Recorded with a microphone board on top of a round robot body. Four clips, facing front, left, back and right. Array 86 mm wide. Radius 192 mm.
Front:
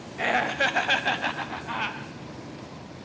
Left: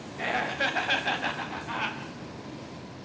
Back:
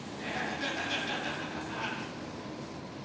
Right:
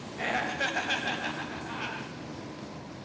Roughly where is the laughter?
Ahead.